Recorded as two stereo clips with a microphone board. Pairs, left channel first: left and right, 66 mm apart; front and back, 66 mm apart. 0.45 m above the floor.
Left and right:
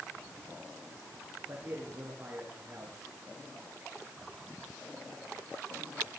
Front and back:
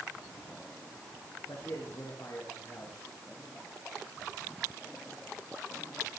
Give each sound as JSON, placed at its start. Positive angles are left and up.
{"t": 1.5, "sound": "a man speaking", "azimuth_deg": -30, "distance_m": 9.0}